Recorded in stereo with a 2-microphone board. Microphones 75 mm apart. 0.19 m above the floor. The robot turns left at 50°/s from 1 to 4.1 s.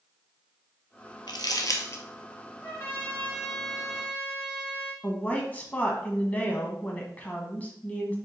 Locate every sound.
1.3 s crumpling: 70° left (ahead or behind), 1.0 m; by 2.0 s 35° left (ahead or behind), 1.0 m
2.6 s a trumpet: 50° left, 1.5 m; by 4.9 s 20° right, 1.5 m
5.0 s a woman speaking: 20° left (ahead or behind), 1.1 m